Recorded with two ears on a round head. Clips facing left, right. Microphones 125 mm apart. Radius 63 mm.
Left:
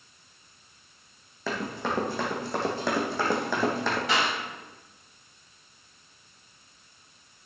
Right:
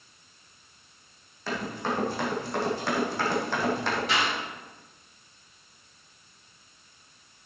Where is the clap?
65° left (ahead or behind), 5 m.